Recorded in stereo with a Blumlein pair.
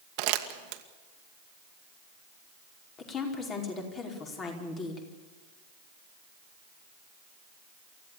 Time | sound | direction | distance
0.2 | crumpling | 40° right | 1.8 m
3.0 | a woman speaking | 25° left | 5 m